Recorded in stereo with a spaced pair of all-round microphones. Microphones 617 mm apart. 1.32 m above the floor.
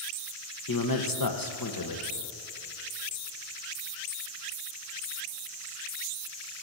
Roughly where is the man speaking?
Left.